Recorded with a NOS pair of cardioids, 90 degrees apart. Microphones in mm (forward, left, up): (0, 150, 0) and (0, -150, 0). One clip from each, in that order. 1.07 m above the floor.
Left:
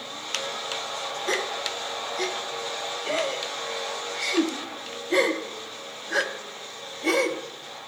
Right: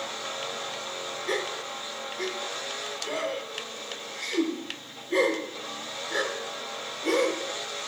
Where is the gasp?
30° left, 0.6 m.